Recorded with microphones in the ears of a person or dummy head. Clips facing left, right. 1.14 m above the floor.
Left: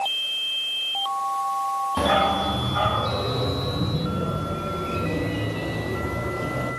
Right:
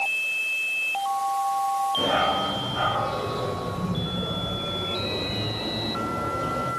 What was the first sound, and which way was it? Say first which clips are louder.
A dog barking: left 7 dB; 55° left (ahead or behind).